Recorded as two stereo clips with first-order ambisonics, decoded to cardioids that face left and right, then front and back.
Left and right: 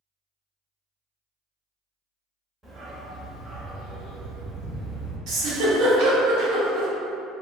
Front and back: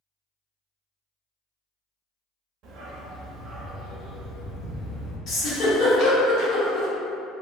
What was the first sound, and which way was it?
A dog barking, 165° right.